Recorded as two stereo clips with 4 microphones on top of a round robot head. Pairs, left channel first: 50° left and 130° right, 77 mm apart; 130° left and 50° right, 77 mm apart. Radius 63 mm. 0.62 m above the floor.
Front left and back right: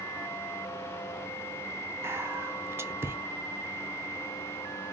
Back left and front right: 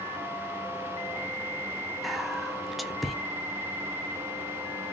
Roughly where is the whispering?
Behind right.